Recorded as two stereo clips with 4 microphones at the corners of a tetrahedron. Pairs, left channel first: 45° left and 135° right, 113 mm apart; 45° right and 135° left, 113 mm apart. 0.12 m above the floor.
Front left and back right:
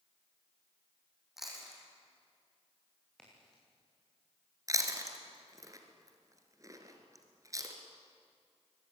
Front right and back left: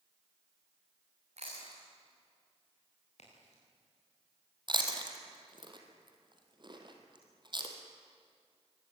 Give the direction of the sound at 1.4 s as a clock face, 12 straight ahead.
7 o'clock.